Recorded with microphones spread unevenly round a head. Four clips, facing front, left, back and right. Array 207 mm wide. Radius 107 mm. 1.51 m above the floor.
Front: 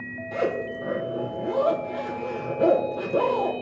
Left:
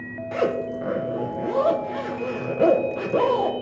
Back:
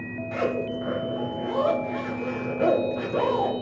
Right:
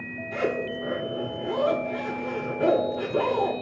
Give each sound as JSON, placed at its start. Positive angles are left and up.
{"t": 0.3, "sound": "a zipper", "azimuth_deg": 60, "distance_m": 1.1}